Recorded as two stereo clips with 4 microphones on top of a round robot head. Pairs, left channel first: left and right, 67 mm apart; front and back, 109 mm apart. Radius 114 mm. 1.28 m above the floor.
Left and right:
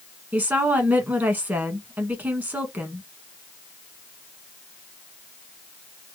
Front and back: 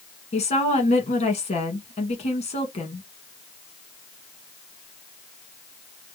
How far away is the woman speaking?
About 1.6 m.